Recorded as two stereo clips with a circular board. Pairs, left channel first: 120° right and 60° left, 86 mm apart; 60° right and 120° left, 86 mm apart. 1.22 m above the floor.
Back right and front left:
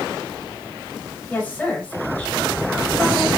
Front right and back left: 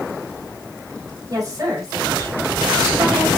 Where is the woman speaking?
165° left, 2 m.